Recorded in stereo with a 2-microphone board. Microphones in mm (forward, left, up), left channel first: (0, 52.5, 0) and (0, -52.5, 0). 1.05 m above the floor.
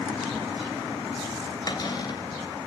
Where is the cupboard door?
40° left (ahead or behind), 3 m.